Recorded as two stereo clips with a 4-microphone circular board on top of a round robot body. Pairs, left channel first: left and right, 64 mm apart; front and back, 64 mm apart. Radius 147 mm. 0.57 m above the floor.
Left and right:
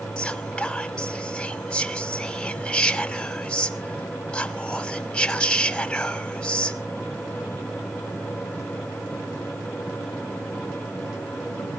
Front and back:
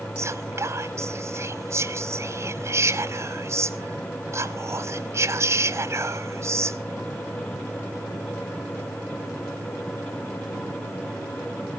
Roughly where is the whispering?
Behind.